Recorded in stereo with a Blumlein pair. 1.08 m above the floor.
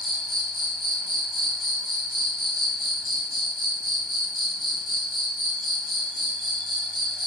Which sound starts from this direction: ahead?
An insect, at 0.0 s.